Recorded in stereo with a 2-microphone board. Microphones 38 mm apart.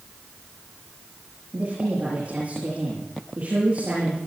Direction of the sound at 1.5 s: 40° right (ahead or behind).